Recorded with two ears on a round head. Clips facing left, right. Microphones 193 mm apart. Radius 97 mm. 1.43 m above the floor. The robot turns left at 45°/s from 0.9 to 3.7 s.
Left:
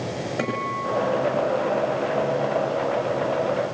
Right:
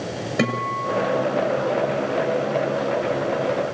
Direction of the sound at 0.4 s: 50° right (ahead or behind).